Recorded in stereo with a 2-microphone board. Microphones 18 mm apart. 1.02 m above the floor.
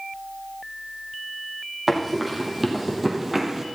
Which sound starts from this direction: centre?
Running footsteps, at 1.9 s.